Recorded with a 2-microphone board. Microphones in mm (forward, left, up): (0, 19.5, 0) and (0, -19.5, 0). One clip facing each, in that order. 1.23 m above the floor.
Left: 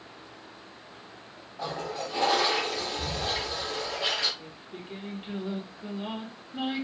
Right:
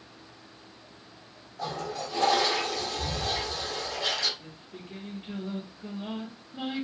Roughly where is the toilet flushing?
Left.